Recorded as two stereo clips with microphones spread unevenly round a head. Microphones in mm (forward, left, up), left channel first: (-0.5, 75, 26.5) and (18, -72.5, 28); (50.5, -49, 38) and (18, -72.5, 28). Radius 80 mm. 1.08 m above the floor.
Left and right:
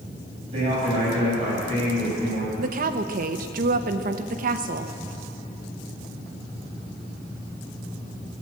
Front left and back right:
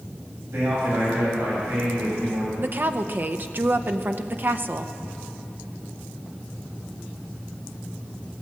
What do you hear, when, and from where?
0.5 s a man speaking: 140° right, 6 m
2.6 s a woman speaking: 115° right, 0.9 m